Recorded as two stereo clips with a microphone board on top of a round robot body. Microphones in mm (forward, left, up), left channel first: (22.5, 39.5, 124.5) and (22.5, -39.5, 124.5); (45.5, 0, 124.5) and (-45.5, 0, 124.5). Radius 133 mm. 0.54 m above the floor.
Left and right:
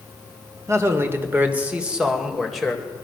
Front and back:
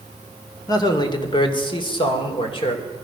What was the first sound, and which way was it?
A man speaking, 40° right.